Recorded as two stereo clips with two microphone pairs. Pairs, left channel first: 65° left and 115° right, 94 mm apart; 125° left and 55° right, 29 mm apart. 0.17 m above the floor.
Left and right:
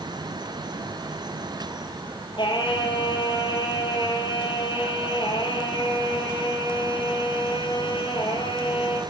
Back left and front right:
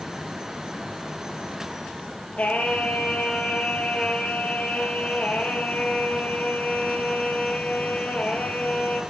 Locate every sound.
2.4 s singing: 95° left, 1.9 m